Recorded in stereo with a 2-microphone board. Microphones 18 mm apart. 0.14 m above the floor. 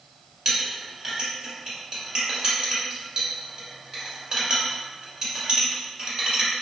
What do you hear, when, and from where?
0.5 s a clink: 35° right (ahead or behind), 1.3 m